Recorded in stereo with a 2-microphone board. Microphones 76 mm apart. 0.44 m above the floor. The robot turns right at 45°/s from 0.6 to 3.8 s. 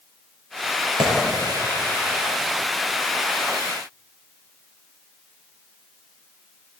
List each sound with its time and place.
1.0 s a clap: 85° right, 6 m; by 1.1 s 80° right, 6 m